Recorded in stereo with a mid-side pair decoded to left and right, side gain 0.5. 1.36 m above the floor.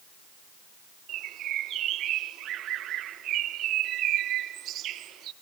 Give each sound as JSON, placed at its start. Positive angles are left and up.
{"t": 1.1, "sound": "a bird", "azimuth_deg": -65, "distance_m": 1.0}